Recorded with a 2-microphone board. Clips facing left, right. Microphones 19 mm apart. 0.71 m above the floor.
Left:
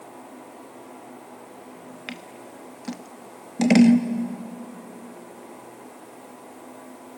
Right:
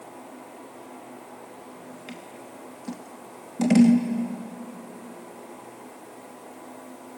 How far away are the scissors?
About 0.9 m.